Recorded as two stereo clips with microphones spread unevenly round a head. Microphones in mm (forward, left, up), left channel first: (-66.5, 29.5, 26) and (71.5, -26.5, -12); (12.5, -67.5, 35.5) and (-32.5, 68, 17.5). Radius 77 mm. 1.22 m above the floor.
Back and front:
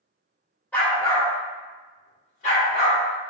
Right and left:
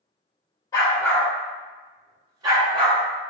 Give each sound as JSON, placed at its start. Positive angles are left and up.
{"t": 0.7, "sound": "a dog barking", "azimuth_deg": -130, "distance_m": 1.1}